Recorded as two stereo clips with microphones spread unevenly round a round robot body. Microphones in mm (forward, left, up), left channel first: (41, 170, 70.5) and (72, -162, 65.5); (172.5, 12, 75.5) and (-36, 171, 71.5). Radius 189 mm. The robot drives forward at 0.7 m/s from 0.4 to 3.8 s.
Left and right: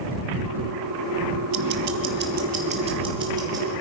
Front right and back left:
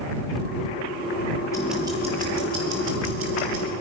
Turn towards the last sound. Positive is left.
turn(degrees=-165)